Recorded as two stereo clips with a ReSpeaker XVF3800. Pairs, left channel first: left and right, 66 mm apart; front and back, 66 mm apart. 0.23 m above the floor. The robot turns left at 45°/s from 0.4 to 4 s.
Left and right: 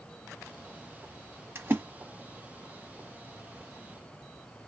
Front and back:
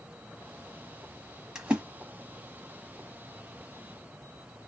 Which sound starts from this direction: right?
A splash, at 1.6 s.